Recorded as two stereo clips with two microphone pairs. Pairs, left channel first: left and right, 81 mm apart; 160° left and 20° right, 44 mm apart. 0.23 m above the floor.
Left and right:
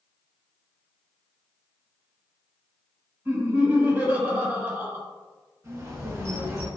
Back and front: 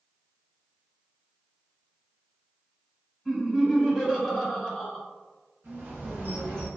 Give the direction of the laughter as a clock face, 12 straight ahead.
3 o'clock.